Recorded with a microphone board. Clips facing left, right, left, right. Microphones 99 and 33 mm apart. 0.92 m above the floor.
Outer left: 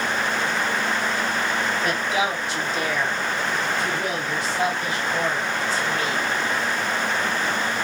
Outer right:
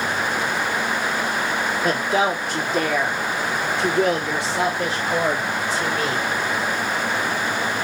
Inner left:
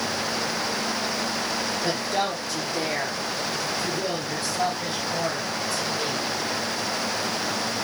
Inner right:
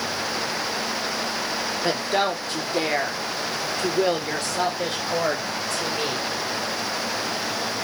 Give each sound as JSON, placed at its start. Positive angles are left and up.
{"t": 1.8, "sound": "a woman speaking", "side_deg": -35, "distance_m": 2.5}